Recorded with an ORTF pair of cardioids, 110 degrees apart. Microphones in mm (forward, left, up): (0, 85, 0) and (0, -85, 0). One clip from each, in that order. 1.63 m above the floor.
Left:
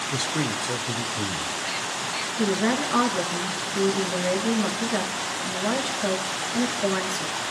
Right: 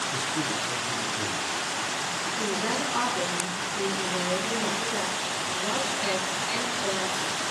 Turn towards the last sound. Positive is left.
turn(degrees=55)